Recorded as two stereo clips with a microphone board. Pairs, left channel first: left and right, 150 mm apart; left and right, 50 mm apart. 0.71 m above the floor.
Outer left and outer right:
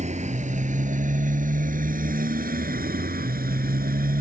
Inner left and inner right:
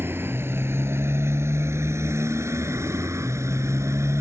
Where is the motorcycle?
50° right (ahead or behind); by 4.2 s 80° right.